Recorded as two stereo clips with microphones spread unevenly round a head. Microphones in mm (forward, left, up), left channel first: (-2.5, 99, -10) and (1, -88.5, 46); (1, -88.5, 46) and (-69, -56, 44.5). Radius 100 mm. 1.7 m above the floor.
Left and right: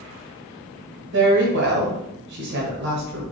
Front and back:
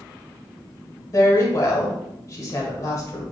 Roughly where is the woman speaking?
Right.